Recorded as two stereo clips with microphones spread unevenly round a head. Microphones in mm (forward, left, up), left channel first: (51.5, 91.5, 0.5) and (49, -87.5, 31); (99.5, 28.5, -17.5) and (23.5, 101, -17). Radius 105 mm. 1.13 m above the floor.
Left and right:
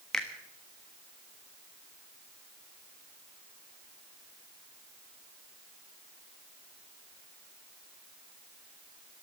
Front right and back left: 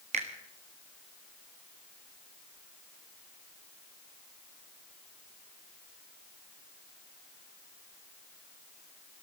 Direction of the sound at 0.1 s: 175° left.